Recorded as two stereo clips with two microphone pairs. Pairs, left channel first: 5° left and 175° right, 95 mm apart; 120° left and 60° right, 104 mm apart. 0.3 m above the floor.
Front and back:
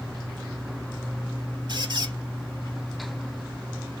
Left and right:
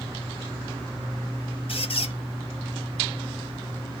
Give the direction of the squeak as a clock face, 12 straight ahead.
7 o'clock.